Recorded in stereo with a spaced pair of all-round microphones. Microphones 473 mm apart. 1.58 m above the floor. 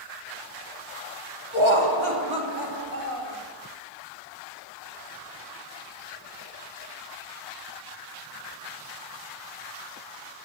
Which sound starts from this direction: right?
Laughter, at 1.5 s.